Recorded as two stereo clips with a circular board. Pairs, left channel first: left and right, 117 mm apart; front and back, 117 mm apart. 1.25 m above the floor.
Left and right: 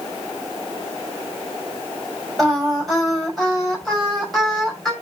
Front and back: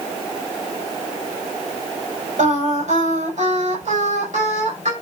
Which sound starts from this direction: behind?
Singing, at 2.4 s.